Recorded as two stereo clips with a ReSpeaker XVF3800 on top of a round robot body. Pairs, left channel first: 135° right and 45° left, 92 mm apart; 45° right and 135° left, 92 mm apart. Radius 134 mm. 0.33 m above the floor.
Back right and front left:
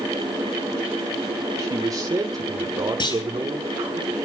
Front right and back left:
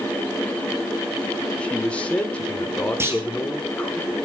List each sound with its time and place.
1.6 s a man speaking: 25° left, 1.6 m
3.0 s a clunk: 165° right, 3.5 m